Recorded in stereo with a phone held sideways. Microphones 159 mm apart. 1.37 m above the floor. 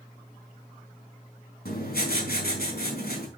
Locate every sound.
1.6 s writing: 75° left (ahead or behind), 4 m